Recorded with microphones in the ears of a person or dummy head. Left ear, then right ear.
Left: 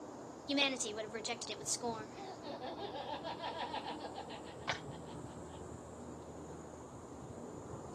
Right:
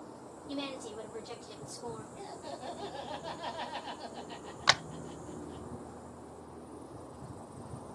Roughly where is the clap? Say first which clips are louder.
Right 14 dB; right.